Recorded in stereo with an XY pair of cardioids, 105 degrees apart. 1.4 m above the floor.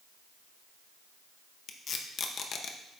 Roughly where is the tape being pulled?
Ahead left.